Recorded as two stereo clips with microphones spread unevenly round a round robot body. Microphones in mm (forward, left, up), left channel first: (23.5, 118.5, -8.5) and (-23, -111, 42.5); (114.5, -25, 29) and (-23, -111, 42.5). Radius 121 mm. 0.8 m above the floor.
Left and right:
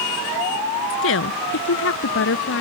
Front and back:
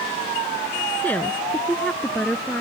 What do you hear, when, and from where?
0.9 s a woman speaking: 115° left; by 2.6 s 120° left